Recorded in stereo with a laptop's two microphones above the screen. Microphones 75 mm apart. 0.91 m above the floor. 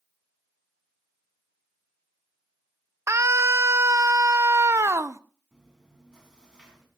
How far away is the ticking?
No ticking in this recording.